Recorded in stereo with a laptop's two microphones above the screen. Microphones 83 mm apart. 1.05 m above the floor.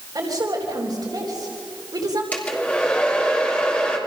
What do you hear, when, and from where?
0.1 s a woman speaking: 55° right (ahead or behind), 3.5 m
2.3 s a hair dryer: 20° left (ahead or behind), 3 m